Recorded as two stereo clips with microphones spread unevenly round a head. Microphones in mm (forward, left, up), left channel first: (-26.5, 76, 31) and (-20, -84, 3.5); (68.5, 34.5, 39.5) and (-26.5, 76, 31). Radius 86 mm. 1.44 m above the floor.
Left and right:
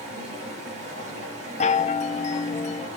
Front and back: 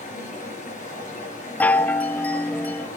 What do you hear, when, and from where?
0.0 s running water: 30° right, 5.5 m
1.6 s a chime: 45° left, 0.6 m